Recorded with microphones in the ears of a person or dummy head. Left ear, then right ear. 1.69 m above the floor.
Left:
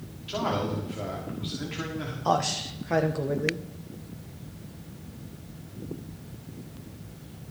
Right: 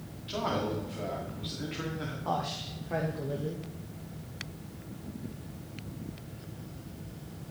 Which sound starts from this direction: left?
A man speaking, at 2.2 s.